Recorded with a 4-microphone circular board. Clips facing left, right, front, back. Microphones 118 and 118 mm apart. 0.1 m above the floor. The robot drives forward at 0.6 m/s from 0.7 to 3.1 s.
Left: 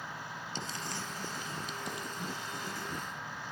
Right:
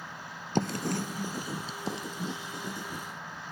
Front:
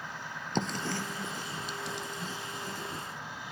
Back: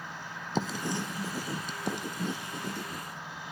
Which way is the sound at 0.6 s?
95° right.